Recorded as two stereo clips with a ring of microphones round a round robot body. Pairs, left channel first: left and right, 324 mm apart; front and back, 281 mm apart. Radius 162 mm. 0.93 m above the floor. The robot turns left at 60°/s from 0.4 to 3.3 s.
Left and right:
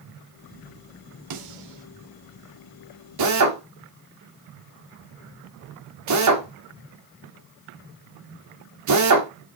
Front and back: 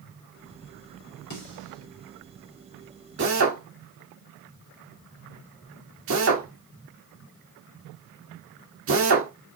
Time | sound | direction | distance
1.3 | a snare drum | 60° right | 3.5 m
3.2 | a drill | 125° right | 2.5 m